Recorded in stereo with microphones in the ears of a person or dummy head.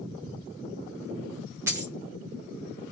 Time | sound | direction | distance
1.7 | a dropped coin | 15° right (ahead or behind) | 0.7 m